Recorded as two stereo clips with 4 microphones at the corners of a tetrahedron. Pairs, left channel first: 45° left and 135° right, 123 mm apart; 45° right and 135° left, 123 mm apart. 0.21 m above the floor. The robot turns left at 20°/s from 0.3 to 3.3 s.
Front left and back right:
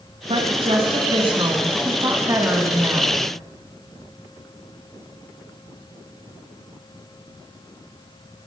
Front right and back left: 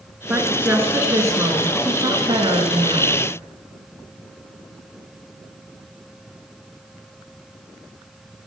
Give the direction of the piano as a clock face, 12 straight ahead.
I don't hear a piano.